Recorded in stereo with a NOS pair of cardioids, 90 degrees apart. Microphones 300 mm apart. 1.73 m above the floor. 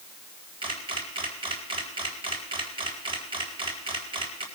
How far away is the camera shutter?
About 4 m.